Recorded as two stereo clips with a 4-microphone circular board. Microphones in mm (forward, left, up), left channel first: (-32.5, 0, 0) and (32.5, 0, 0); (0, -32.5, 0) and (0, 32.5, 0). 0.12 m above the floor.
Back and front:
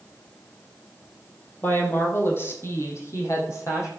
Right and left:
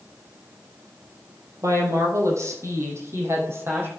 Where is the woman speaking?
125° left, 3 m; by 3.9 s 140° left, 4 m.